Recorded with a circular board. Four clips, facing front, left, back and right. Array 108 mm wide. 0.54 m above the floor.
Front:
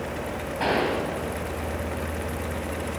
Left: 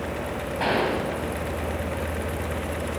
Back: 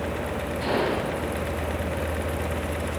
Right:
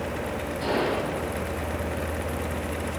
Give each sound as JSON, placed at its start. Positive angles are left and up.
{"t": 0.6, "sound": "a gunshot", "azimuth_deg": 50, "distance_m": 2.5}